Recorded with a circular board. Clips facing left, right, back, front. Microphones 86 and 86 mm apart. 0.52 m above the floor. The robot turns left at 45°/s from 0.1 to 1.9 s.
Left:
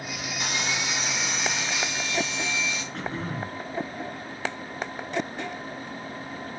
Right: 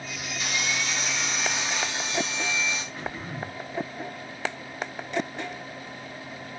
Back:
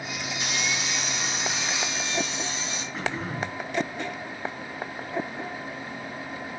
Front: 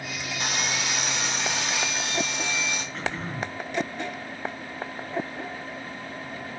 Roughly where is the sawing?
Ahead left.